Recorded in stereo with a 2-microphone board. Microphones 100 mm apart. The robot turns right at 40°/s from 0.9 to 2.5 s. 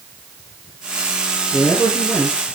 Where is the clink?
I don't hear a clink.